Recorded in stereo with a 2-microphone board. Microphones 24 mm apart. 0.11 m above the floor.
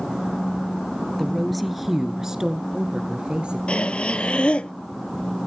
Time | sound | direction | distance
1.2 | a woman speaking | 10° left (ahead or behind) | 1.7 m
3.7 | breathing | 50° left (ahead or behind) | 0.6 m